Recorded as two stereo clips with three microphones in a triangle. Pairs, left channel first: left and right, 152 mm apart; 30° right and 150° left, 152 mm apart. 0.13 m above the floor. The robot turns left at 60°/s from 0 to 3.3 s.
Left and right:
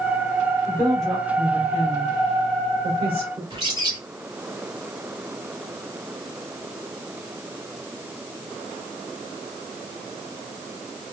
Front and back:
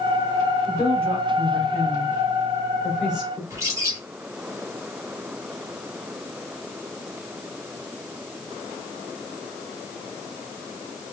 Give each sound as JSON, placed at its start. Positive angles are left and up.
{"t": 0.7, "sound": "a woman speaking", "azimuth_deg": 25, "distance_m": 2.5}
{"t": 3.5, "sound": "a bird", "azimuth_deg": -145, "distance_m": 2.5}